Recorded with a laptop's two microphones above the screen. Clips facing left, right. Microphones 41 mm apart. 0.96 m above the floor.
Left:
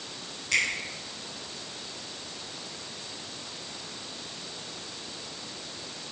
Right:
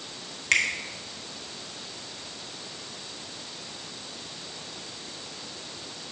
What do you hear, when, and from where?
0.5 s a finger snap: 65° right (ahead or behind), 1.4 m